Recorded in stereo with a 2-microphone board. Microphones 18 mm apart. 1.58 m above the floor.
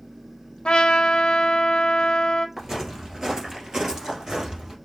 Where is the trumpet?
65° left (ahead or behind), 0.6 m.